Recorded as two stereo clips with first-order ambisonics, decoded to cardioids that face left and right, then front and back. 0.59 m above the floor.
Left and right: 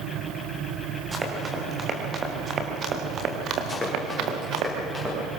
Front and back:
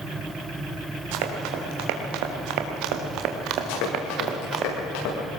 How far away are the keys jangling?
I don't hear keys jangling.